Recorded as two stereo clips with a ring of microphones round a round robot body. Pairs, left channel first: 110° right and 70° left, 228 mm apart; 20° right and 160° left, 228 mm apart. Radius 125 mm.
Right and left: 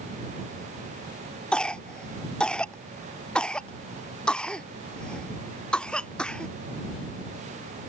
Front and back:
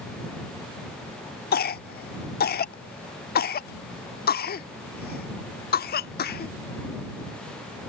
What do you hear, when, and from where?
1.5 s a cough: 30° right